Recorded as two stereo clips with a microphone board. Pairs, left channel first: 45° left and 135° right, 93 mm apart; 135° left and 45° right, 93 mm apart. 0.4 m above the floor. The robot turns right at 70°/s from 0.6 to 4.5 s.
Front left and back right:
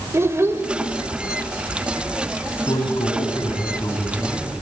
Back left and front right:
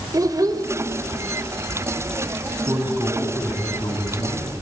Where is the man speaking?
5° left, 3 m; by 4.5 s 135° left, 3 m.